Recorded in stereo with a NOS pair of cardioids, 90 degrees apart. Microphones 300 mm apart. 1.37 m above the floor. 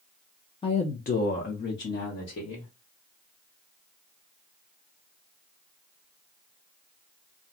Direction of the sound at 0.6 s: 20° left.